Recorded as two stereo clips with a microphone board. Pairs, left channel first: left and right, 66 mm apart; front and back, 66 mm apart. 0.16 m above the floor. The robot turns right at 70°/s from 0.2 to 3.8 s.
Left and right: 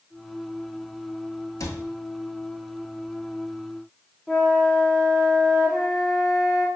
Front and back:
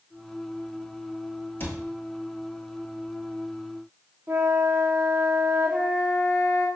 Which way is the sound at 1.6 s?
55° left.